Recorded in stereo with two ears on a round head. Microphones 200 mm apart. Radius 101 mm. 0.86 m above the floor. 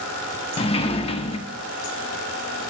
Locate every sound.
0.6 s a sliding door: 25° left (ahead or behind), 1.0 m